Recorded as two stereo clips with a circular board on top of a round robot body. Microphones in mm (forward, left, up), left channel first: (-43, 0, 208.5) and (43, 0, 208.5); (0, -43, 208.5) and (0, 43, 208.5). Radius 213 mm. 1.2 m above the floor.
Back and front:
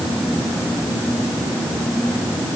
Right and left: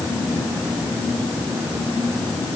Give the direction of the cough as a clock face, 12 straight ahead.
I don't hear a cough.